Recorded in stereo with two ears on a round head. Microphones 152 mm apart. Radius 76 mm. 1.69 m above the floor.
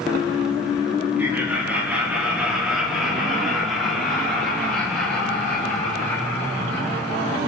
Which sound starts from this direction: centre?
Laughter, at 1.2 s.